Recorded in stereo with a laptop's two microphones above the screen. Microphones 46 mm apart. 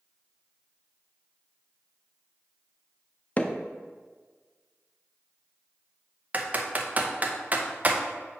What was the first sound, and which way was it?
Hammering, 30° left (ahead or behind).